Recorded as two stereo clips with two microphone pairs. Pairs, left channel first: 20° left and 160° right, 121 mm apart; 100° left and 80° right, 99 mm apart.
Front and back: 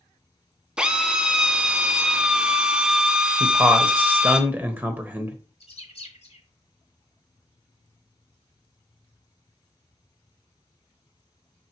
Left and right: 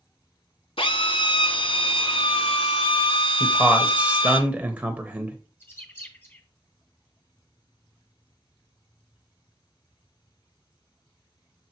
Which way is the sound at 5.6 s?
35° left.